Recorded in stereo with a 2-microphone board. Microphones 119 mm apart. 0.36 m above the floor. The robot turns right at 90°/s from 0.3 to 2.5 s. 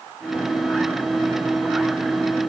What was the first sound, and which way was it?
Only background noise.